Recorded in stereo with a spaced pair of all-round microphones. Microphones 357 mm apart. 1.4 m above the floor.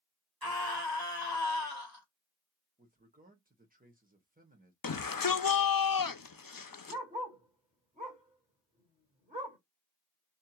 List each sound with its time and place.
0.4 s a scream: 75° right (ahead or behind), 1.7 m
2.8 s a man speaking: 25° right (ahead or behind), 1.0 m
4.8 s a shout: 70° left (ahead or behind), 0.6 m
6.9 s a dog barking: 20° right (ahead or behind), 1.8 m